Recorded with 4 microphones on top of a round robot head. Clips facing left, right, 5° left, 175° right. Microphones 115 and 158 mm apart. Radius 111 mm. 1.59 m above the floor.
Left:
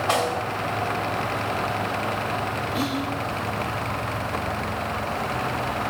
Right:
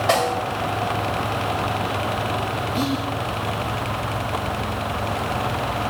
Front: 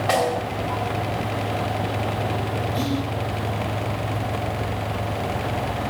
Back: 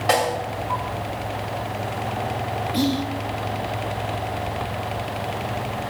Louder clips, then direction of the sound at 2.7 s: Right 3 dB, back 5 dB; 160° right.